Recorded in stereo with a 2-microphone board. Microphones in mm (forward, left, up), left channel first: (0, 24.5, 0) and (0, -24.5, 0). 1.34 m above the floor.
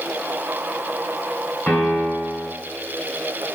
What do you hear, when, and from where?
1.7 s a piano: 15° left (ahead or behind), 1.5 m